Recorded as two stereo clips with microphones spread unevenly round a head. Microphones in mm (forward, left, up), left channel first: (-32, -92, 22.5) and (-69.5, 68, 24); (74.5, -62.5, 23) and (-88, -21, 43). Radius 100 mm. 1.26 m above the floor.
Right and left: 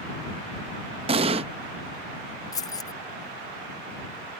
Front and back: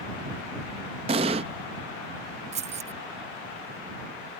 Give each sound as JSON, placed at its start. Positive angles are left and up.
{"t": 1.1, "sound": "an explosion", "azimuth_deg": 135}
{"t": 2.5, "sound": "keys jangling", "azimuth_deg": -145}